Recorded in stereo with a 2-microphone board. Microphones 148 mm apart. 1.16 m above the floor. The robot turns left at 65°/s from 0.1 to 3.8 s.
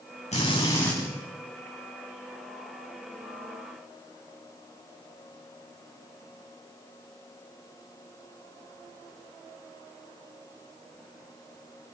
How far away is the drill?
About 9.5 m.